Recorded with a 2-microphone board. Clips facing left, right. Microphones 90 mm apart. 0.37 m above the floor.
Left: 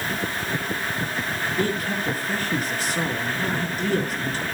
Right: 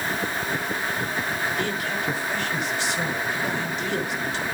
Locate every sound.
1.6 s a man speaking: 40° left (ahead or behind), 5 m